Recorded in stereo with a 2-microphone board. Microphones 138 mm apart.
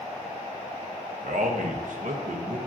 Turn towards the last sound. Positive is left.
turn(degrees=-65)  # may be behind; listen again after turning